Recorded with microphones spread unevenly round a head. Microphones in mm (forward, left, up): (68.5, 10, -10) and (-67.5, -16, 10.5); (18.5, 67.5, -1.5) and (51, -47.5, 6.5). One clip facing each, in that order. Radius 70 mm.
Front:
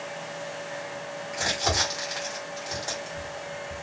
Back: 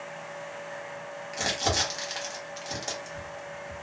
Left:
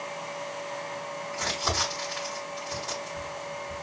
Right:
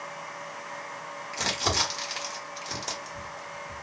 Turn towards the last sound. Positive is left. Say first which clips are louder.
# front 1 dB, right 2 dB
turn(degrees=-110)